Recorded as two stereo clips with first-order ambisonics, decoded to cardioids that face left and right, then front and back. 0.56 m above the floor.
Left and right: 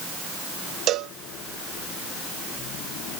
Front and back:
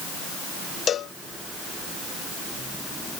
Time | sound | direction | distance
0.9 | a cowbell | 55° right | ?